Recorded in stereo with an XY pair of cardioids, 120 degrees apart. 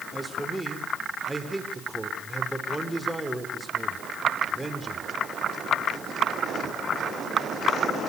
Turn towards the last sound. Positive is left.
turn(degrees=-10)